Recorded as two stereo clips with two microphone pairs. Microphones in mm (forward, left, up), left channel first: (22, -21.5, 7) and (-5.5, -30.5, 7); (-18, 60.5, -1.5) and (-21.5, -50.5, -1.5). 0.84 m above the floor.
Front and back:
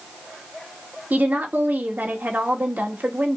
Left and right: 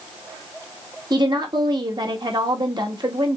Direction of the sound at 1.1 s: 140° right.